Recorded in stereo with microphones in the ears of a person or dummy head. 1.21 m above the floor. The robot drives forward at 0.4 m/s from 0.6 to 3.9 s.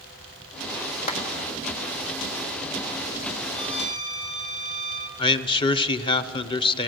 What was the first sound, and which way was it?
A clap, 40° left (ahead or behind).